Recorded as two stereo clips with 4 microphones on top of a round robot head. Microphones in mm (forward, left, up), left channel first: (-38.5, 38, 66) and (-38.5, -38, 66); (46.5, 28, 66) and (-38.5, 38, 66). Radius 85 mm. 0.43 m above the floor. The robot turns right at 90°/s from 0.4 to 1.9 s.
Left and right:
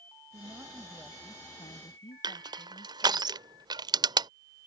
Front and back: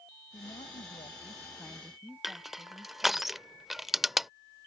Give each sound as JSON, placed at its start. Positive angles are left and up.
{"t": 0.3, "sound": "a woman speaking", "azimuth_deg": -45}
{"t": 2.2, "sound": "crushing", "azimuth_deg": -100}